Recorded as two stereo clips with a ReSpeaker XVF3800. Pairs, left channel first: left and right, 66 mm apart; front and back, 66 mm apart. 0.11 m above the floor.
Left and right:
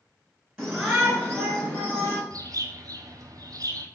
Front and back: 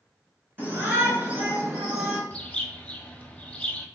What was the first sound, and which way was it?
A shout, 170° right.